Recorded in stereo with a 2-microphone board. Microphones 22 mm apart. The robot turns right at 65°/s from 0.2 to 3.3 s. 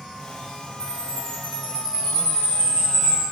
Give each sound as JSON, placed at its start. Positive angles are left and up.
{"t": 0.8, "sound": "a chime", "azimuth_deg": 125, "distance_m": 1.9}